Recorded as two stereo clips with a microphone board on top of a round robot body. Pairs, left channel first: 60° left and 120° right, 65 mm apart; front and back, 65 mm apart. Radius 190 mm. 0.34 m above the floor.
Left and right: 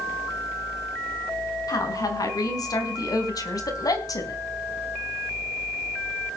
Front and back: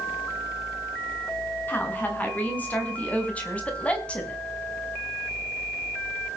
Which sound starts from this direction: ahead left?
A woman speaking, at 1.7 s.